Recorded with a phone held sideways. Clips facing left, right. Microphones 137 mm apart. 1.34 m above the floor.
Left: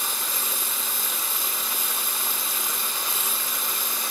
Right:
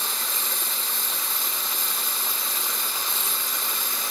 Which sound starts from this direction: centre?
A lawn mower, at 0.0 s.